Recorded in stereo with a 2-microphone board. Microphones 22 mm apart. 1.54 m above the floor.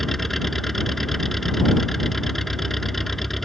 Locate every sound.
0.0 s an engine running: 10° left (ahead or behind)